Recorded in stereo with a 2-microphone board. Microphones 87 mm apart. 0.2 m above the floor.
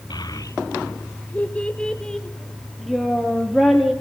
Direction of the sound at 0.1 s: 55° left (ahead or behind).